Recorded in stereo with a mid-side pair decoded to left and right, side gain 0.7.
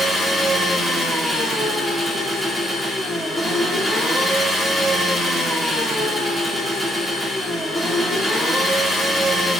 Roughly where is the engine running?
Ahead.